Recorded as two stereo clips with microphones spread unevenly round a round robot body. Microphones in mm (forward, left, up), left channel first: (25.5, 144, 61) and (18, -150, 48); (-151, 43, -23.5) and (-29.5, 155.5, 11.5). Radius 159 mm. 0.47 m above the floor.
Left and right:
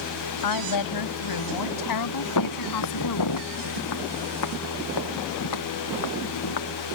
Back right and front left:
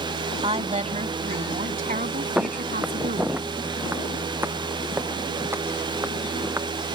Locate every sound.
0.4 s a woman speaking: 95° left; by 3.4 s 70° left
2.4 s footsteps: 125° left; by 6.7 s 115° left